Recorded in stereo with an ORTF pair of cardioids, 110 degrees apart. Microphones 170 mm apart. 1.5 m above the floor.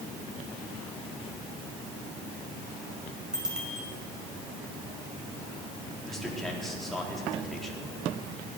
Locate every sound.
3.3 s a bicycle bell: 5° right, 6 m
6.0 s a man speaking: straight ahead, 4 m